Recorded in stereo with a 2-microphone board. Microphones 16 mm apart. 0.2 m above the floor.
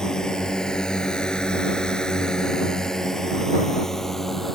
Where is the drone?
45° left (ahead or behind); by 4.5 s 20° left (ahead or behind).